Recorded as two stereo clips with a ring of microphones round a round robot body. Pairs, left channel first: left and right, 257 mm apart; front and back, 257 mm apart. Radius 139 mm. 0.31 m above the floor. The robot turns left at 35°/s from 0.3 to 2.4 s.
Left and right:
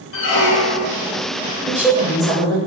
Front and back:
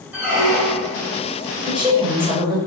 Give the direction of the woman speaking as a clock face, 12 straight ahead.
5 o'clock.